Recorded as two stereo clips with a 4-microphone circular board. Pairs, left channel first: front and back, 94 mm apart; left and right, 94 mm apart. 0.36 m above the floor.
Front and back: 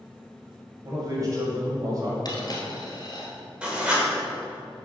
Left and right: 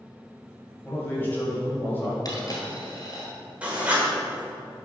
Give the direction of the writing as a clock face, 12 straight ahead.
4 o'clock.